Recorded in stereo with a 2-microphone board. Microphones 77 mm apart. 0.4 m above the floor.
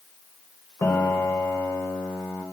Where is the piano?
40° left (ahead or behind), 0.9 m.